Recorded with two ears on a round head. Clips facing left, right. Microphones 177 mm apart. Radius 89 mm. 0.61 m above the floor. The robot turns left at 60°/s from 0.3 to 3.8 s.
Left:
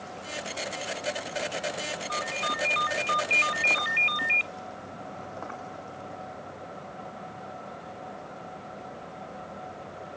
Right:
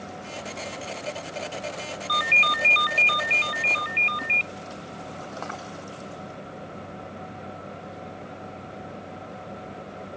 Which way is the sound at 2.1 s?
85° right.